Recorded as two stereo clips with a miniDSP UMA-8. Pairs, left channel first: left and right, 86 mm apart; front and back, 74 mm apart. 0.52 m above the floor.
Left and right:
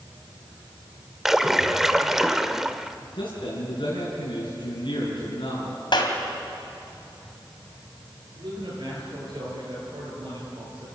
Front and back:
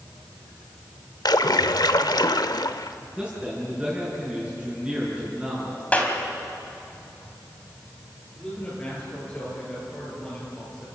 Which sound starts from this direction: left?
A man speaking, at 3.2 s.